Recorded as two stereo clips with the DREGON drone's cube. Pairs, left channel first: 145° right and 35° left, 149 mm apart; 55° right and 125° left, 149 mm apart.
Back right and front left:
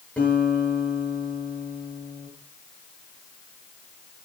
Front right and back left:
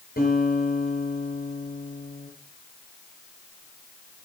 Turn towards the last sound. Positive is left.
turn(degrees=-65)